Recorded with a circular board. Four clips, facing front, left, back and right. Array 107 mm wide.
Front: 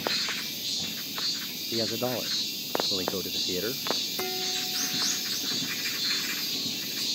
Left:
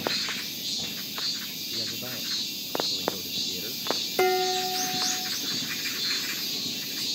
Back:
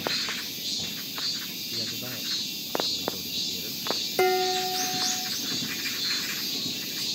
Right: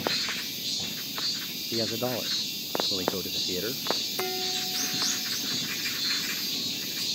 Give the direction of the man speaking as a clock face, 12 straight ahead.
1 o'clock.